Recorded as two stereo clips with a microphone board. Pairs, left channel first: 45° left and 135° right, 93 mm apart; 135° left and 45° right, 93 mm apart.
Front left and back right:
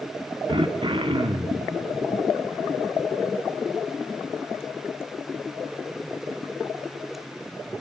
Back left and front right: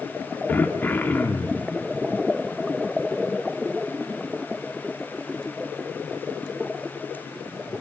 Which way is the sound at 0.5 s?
155° right.